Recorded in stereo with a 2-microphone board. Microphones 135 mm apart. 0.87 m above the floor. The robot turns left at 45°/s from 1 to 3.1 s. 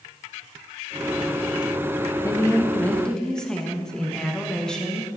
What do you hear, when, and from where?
2.2 s a woman speaking: 45° left, 1.0 m; by 5.1 s 10° left, 1.0 m